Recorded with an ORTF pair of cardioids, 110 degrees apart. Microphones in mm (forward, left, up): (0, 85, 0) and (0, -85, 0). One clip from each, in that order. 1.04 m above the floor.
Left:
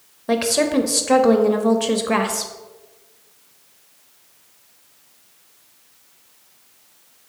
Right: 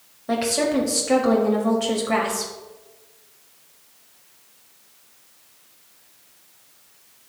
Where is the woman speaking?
30° left, 1.3 m.